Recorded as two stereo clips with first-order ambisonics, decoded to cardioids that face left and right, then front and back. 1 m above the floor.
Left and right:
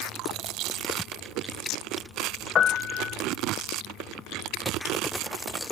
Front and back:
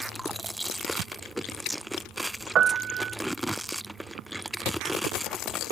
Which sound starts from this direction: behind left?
A piano, at 2.5 s.